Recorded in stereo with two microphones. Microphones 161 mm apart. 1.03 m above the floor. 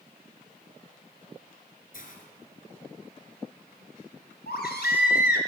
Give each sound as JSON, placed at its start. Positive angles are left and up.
{"t": 1.9, "sound": "a hiss", "side_deg": 55, "distance_m": 2.5}
{"t": 4.5, "sound": "a baby crying", "side_deg": 80, "distance_m": 2.5}